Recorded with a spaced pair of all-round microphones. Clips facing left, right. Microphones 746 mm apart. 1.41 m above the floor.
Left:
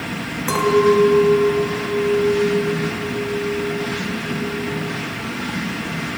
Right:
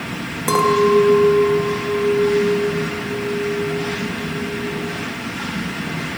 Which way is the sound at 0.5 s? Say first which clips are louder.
Even; 65° right (ahead or behind).